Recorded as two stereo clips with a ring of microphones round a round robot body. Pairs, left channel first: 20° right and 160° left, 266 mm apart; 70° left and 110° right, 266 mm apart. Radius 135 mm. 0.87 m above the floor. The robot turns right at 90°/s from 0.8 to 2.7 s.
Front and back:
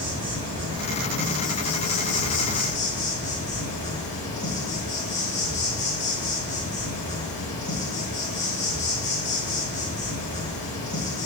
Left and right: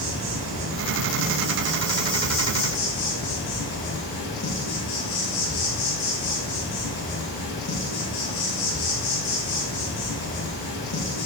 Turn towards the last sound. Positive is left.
turn(degrees=35)